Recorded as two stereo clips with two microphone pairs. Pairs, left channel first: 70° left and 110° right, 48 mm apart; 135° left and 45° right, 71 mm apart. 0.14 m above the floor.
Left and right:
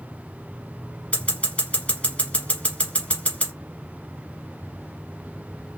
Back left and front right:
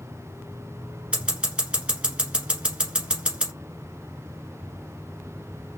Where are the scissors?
25° left, 1.6 m.